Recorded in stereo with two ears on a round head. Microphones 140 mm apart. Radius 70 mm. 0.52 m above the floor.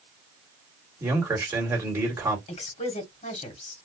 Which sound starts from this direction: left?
A woman speaking, at 2.5 s.